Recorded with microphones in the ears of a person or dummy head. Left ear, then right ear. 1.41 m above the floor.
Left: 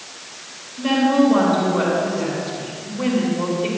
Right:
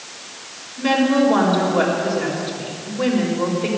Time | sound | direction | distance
0.8 | a woman speaking | 20° right (ahead or behind) | 4.5 m